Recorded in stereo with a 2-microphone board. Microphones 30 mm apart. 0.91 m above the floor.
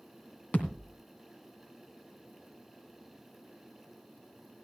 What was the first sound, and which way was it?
A thud, 50° left (ahead or behind).